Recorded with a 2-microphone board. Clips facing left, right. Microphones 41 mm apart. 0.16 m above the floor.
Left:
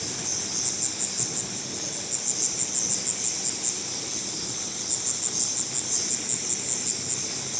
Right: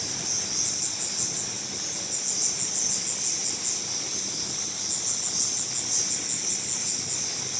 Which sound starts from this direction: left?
An insect, at 0.0 s.